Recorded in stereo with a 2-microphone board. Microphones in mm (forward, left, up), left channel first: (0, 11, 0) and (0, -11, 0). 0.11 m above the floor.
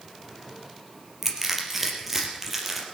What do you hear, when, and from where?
1.2 s crushing: 5° right (ahead or behind), 3.5 m